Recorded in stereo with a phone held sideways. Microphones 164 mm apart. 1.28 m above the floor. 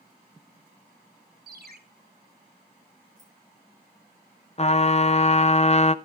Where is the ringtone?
70° right (ahead or behind), 2.5 m.